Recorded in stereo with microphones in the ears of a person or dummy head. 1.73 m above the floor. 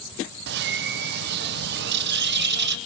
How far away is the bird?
About 1.4 m.